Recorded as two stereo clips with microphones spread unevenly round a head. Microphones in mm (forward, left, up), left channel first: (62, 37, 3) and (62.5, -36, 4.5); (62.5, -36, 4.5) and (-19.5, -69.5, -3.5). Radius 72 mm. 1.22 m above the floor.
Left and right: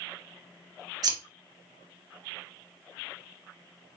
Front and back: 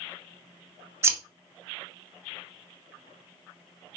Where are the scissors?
100° right, 0.5 m.